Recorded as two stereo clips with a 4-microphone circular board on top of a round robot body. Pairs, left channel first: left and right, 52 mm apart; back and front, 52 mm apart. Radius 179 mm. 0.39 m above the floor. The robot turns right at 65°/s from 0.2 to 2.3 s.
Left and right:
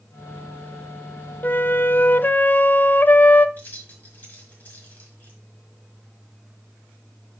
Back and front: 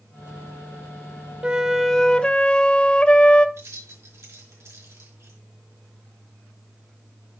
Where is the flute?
60° left, 0.9 m; by 3.5 s 120° left, 0.9 m.